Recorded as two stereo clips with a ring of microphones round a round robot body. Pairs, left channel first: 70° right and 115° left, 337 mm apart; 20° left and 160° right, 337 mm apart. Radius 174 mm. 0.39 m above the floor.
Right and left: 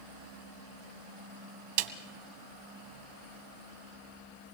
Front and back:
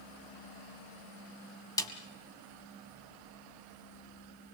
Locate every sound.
1.8 s a snare drum: 100° left, 2.0 m